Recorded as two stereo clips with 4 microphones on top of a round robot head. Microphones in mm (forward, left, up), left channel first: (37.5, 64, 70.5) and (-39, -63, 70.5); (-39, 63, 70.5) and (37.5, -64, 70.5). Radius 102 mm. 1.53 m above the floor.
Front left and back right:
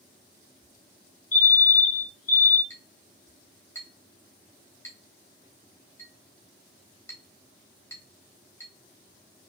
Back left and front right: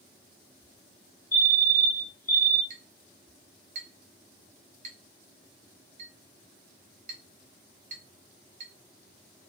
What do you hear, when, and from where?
1.3 s a fire alarm: 45° left, 1.5 m
2.7 s a clink: 15° right, 1.0 m